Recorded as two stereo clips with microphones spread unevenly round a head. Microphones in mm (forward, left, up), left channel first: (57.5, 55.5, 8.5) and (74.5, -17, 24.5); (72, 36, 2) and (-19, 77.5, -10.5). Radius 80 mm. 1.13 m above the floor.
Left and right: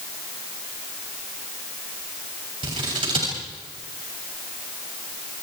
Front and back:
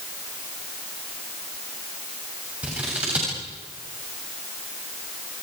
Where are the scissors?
120° right, 7 m.